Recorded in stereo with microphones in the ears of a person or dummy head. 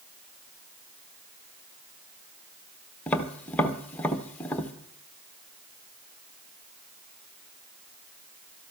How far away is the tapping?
About 1.0 m.